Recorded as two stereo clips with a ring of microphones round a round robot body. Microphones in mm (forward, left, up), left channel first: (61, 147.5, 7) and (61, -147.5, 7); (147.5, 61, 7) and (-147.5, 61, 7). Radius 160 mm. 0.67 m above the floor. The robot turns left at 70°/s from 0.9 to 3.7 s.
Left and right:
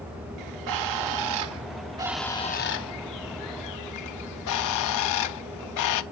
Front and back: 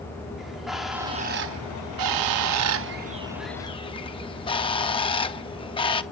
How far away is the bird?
About 0.7 m.